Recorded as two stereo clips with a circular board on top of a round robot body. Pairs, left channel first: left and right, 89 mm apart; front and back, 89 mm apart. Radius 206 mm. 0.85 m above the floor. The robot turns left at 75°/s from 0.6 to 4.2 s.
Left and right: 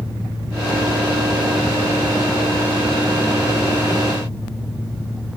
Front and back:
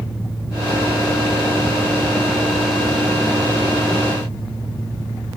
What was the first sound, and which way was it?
Only background noise.